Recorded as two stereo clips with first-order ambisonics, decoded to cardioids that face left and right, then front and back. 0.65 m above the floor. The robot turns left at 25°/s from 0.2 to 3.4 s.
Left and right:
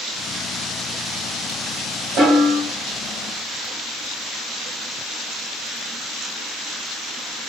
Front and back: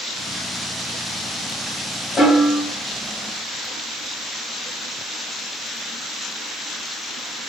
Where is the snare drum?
75° right, 1.7 m; by 2.6 s 85° right, 1.7 m.